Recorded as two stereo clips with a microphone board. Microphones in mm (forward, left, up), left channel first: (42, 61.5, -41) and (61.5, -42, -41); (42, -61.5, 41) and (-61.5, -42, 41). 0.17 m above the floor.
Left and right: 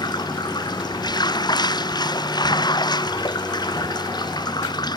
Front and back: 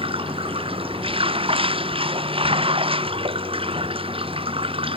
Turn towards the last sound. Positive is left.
turn(degrees=145)